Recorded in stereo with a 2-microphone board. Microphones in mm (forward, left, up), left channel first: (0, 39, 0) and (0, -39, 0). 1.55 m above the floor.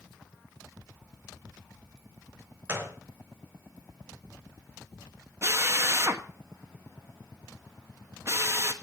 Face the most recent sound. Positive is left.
turn(degrees=-40)  # may be behind; listen again after turning